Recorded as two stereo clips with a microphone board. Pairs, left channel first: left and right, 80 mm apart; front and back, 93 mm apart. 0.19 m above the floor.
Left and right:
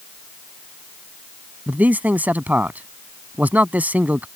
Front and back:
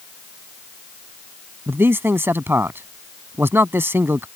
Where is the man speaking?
140° right.